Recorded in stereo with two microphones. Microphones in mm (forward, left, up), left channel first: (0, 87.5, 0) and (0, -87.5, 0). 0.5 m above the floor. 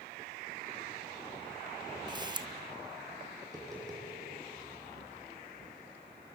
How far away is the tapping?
About 6.5 m.